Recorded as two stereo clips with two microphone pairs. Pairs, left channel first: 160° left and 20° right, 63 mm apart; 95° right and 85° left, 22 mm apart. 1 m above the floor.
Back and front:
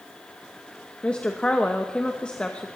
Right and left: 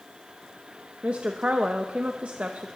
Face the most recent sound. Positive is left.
turn(degrees=85)